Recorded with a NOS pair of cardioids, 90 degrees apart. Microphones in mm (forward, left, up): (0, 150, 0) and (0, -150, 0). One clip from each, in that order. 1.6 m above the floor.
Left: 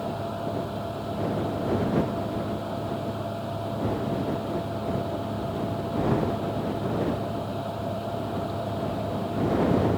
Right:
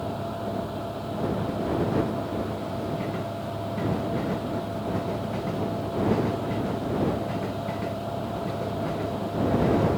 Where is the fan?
5° left.